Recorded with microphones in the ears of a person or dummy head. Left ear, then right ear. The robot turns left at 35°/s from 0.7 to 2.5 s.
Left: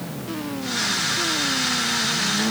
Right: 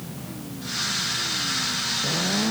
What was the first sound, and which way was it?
Only background noise.